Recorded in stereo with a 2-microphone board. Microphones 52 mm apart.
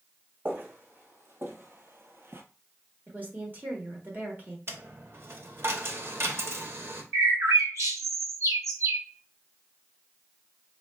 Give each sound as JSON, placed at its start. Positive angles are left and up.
{"t": 0.5, "sound": "footsteps", "side_deg": -40, "distance_m": 1.2}
{"t": 3.1, "sound": "a woman speaking", "side_deg": -35, "distance_m": 1.1}
{"t": 4.7, "sound": "a dropped coin", "side_deg": -50, "distance_m": 0.7}
{"t": 7.1, "sound": "a bird", "side_deg": -80, "distance_m": 0.8}